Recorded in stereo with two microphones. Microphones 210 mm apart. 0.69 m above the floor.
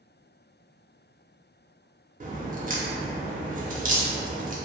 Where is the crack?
40° right (ahead or behind), 0.6 m.